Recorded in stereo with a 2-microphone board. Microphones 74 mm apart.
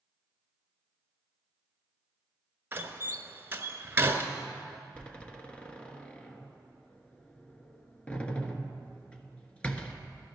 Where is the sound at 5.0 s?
15° left (ahead or behind), 1.3 m.